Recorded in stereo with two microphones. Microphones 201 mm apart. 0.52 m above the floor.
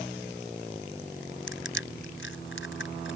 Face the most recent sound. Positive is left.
turn(degrees=75)  # may be behind; listen again after turning